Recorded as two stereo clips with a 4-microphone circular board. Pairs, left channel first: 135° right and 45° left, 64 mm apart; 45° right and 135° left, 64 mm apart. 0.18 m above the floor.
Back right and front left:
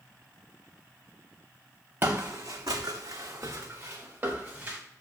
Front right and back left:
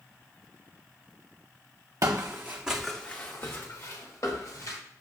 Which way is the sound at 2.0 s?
95° left.